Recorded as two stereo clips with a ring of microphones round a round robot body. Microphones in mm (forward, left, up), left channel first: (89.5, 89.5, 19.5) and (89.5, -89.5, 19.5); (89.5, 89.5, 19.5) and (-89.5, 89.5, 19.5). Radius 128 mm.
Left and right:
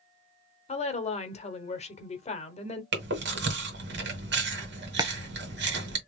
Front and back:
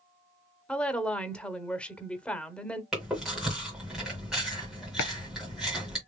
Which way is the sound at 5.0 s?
20° right.